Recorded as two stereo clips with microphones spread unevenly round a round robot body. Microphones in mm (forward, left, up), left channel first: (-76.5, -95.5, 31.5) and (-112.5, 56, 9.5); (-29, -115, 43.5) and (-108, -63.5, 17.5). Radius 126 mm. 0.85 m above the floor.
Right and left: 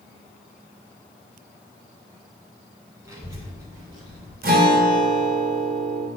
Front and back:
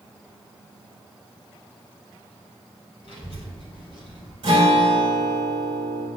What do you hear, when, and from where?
3.0 s a child speaking: 30° left, 1.3 m; by 4.3 s 35° left, 2 m
4.4 s a guitar: 120° left, 2 m